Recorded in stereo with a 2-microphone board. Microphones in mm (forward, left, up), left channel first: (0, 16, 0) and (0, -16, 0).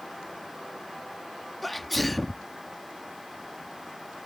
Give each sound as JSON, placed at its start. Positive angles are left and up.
{"t": 1.6, "sound": "a sneeze", "side_deg": 5}